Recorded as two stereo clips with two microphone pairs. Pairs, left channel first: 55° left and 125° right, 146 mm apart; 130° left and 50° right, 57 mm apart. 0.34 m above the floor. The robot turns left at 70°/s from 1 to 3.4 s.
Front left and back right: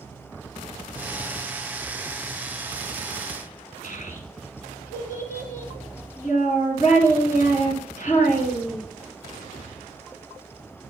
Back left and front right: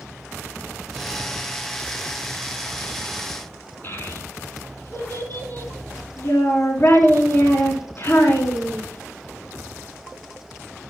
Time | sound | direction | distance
3.8 | a child speaking | 80° left | 3.5 m